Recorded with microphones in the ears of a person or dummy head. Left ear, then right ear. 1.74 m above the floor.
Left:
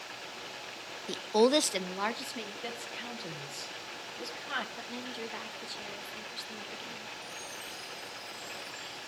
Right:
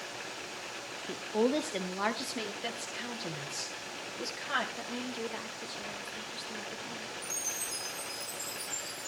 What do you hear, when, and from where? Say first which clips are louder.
1.1 s a woman speaking: left 5 dB; 80° left, 0.7 m; by 2.5 s 10° right (ahead or behind), 1.2 m
2.6 s a woman speaking: right 1 dB; 5° right (ahead or behind), 1.8 m
4.8 s a woman speaking: right 2 dB; 5° left (ahead or behind), 2.0 m
7.2 s a chime: right 4 dB; 30° right (ahead or behind), 9.5 m